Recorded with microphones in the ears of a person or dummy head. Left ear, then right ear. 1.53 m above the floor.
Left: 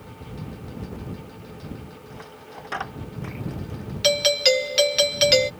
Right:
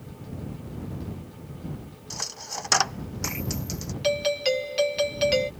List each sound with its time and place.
2.1 s a dropped coin: 80° right
4.0 s a doorbell: 40° left (ahead or behind)